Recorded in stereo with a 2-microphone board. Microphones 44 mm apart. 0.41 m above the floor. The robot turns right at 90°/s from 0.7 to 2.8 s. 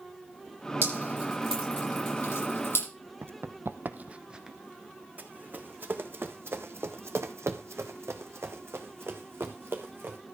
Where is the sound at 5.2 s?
40° right (ahead or behind), 1.7 m; by 10.2 s 50° right (ahead or behind), 2 m.